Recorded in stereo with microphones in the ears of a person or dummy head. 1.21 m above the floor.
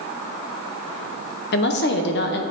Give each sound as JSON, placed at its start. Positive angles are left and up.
{"t": 1.5, "sound": "a woman speaking", "side_deg": 50, "distance_m": 0.8}